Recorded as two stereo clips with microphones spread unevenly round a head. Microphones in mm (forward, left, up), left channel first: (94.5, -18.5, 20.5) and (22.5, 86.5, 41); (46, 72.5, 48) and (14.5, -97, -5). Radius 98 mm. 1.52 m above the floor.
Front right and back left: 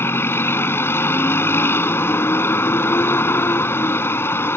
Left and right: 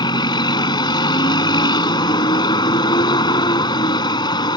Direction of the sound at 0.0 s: 20° left.